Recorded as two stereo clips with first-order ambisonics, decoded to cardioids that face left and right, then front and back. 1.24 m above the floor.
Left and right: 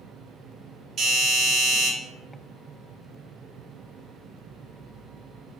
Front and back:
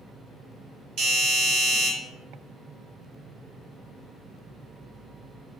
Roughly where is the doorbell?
Behind right.